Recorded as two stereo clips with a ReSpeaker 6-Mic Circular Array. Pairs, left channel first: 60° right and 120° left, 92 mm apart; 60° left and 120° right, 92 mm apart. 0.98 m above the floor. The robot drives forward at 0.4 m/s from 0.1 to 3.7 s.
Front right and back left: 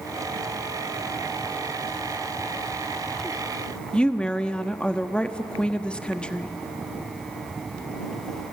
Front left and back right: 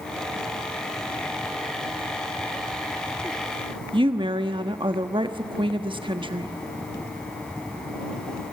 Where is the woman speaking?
140° right, 1.2 m.